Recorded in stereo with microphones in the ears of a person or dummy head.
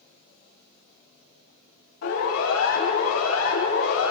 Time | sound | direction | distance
2.0 | a siren | 85° left | 9.5 m